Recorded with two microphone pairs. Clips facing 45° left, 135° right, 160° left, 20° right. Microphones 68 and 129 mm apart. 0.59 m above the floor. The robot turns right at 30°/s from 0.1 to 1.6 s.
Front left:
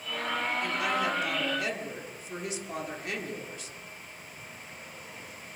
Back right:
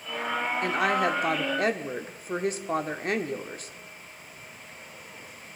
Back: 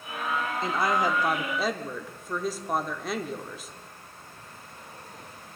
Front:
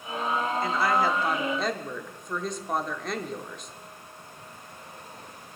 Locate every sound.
0.6 s a woman speaking: 145° right, 1.1 m; by 3.7 s 115° right, 1.1 m